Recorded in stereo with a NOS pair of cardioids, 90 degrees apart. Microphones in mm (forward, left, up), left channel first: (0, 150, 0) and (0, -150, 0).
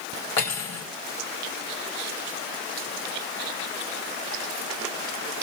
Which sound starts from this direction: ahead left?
Cutlery clinking, at 0.4 s.